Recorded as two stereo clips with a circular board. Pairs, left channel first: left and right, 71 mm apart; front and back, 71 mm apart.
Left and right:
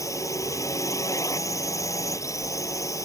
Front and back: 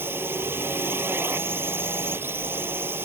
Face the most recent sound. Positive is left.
turn(degrees=125)